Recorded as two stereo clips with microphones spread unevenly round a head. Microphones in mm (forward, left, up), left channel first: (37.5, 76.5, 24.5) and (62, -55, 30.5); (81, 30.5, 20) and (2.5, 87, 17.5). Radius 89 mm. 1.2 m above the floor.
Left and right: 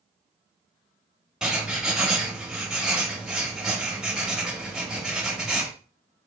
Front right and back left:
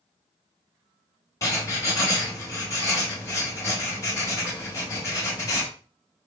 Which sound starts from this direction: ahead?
Writing, at 1.4 s.